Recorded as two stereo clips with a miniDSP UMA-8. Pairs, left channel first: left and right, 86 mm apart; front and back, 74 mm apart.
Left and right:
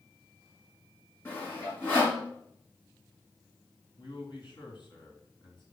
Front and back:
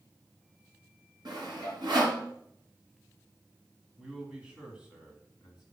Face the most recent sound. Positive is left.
turn(degrees=110)